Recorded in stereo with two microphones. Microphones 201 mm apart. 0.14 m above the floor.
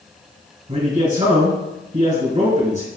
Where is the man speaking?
35° right (ahead or behind), 1.5 m.